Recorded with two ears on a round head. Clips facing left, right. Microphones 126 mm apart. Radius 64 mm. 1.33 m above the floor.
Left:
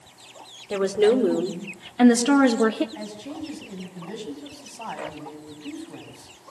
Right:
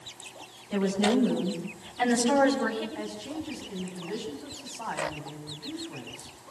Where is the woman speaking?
85° left, 4.5 m; by 2.9 s 80° left, 3.5 m.